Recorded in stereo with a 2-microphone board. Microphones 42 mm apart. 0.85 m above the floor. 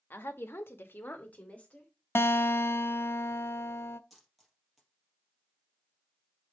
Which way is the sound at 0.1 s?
55° left (ahead or behind).